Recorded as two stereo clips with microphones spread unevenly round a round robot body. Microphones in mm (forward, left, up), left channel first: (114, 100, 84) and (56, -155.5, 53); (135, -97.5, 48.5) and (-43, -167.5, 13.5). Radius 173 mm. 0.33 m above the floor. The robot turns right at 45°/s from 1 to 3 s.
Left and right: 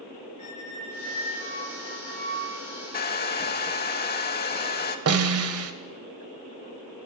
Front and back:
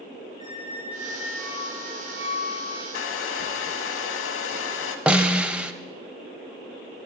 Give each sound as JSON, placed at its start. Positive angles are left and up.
{"t": 0.4, "sound": "a squeak", "azimuth_deg": 110, "distance_m": 2.0}
{"t": 2.9, "sound": "a hair dryer", "azimuth_deg": 15, "distance_m": 0.8}
{"t": 5.1, "sound": "a snare drum", "azimuth_deg": -80, "distance_m": 0.8}